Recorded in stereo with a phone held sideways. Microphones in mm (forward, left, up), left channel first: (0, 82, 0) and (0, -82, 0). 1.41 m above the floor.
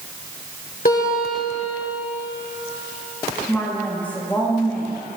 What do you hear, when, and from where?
0.8 s a guitar: 65° left (ahead or behind), 3.5 m
3.5 s a woman speaking: 10° left (ahead or behind), 2.5 m